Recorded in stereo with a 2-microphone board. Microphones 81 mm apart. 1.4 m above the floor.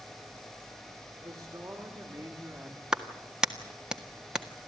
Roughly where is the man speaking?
Right.